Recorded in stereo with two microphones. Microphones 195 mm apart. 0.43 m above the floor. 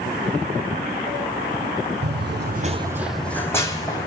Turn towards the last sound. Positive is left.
turn(degrees=20)  # may be behind; listen again after turning